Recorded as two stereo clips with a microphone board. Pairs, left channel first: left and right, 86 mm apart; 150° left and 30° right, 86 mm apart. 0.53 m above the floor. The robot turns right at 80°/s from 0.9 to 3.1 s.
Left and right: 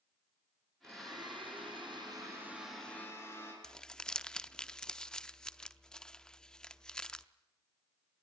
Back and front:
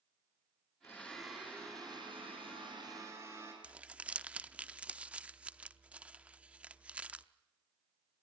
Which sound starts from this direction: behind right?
A blender, at 0.8 s.